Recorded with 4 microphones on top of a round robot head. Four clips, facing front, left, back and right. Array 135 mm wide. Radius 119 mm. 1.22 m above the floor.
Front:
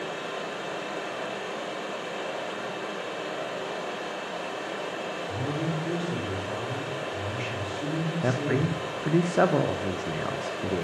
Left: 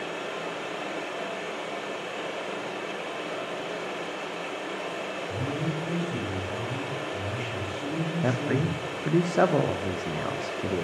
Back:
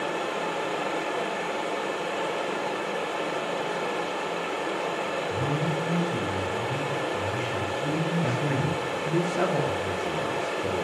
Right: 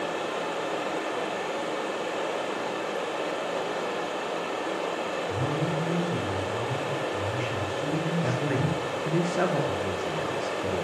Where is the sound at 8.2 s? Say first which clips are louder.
Even, front 1 dB; 50° left, 0.7 m.